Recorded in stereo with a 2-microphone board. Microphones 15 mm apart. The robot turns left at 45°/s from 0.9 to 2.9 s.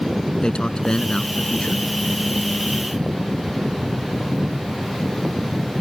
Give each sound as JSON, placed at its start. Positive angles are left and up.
{"t": 0.4, "sound": "a man speaking", "azimuth_deg": 120}